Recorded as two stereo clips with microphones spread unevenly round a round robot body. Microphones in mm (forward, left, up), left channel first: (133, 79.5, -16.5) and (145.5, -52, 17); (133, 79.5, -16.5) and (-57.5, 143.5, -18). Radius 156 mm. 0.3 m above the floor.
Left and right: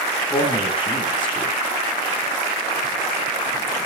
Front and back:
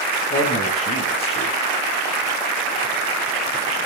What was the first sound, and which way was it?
A man speaking, 25° left.